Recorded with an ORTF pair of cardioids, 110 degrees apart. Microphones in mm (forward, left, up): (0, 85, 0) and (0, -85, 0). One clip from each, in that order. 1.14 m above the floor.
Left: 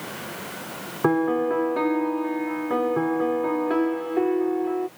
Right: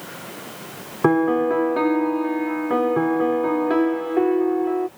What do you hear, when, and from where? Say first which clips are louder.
1.0 s a piano: right 4 dB; 20° right